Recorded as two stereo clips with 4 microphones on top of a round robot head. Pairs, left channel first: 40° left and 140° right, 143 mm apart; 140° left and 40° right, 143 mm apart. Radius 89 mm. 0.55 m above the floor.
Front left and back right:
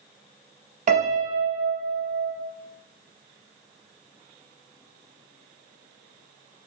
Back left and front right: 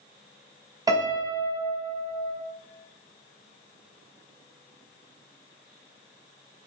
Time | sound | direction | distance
0.9 | a piano | 105° right | 0.8 m